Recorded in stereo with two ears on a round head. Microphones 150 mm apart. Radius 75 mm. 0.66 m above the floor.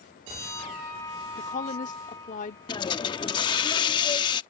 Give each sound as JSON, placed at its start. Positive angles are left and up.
{"t": 1.4, "sound": "a woman speaking", "side_deg": 50}
{"t": 2.7, "sound": "a hiss", "side_deg": 25}